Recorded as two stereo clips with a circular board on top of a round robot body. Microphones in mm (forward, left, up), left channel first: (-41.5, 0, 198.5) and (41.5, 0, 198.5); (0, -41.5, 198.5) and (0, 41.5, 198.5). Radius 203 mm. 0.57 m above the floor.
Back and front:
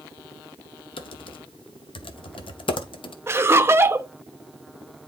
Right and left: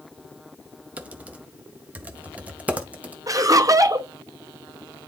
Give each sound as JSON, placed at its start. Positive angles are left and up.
{"t": 1.0, "sound": "typing on a keyboard", "azimuth_deg": 165, "distance_m": 0.6}
{"t": 3.3, "sound": "laughter", "azimuth_deg": 55, "distance_m": 0.8}